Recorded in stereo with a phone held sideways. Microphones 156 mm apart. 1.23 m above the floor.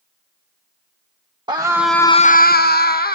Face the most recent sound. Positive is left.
turn(degrees=70)  # may be behind; listen again after turning